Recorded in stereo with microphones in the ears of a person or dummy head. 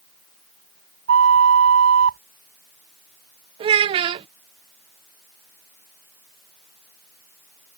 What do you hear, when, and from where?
1.1 s a flute: 70° right (ahead or behind)
3.6 s a child speaking: 30° right (ahead or behind)